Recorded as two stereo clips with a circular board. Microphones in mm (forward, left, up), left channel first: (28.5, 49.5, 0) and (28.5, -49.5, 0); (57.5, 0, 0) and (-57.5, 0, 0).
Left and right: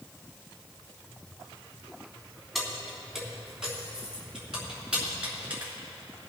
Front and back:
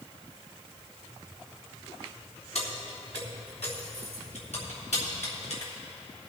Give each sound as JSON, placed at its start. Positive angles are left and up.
{"t": 2.5, "sound": "keys jangling", "azimuth_deg": 0, "distance_m": 2.5}